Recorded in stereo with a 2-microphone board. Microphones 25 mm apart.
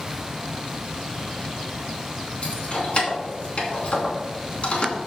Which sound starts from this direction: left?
Keys jangling, at 2.4 s.